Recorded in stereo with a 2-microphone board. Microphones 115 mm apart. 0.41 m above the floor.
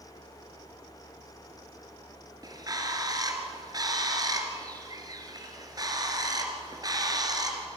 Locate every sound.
2.4 s a bird: 35° right (ahead or behind), 2.5 m